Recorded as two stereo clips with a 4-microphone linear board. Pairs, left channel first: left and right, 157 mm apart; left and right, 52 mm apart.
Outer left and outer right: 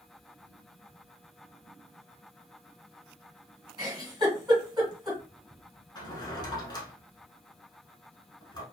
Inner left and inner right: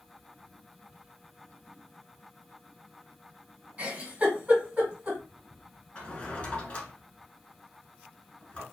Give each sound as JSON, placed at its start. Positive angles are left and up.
{"t": 3.8, "sound": "a giggle", "side_deg": -30, "distance_m": 1.6}
{"t": 6.0, "sound": "a drawer", "side_deg": 30, "distance_m": 1.0}